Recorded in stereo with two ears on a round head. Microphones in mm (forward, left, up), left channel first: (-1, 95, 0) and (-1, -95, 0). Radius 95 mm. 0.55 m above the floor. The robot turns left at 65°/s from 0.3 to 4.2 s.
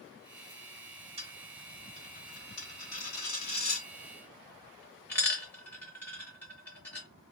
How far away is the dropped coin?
About 2.5 m.